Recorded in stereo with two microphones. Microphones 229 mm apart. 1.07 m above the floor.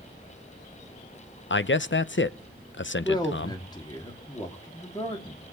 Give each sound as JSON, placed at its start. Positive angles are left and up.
{"t": 1.5, "sound": "a man speaking", "side_deg": 55, "distance_m": 0.6}
{"t": 3.0, "sound": "a man speaking", "side_deg": 20, "distance_m": 2.5}